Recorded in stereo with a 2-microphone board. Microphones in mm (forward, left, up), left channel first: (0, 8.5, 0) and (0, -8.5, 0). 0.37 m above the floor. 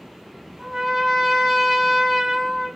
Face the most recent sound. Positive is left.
turn(degrees=-55)  # may be behind; listen again after turning